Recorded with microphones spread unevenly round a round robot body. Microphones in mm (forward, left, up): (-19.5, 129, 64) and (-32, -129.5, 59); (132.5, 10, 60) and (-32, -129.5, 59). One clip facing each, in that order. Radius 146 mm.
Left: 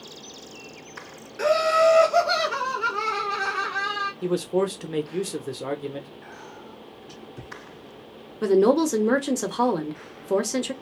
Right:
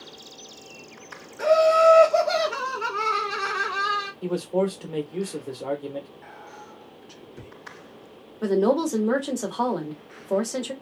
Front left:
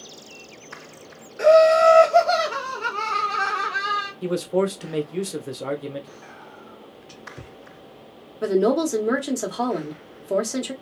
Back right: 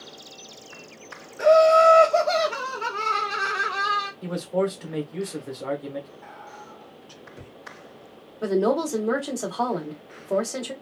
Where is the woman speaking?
100° left, 1.0 m.